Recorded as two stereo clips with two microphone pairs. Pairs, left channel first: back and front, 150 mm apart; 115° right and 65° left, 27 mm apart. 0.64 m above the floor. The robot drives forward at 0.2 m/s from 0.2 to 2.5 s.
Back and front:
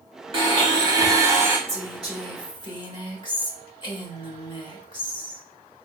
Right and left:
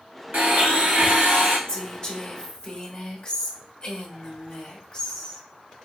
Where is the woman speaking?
135° right, 1.0 m; by 5.4 s 145° right, 1.1 m.